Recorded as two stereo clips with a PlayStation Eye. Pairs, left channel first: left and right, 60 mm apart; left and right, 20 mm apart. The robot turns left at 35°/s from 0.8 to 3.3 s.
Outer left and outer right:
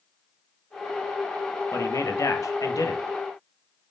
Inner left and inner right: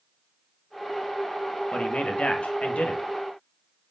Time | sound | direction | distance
1.7 | a man speaking | 120° left | 1.4 m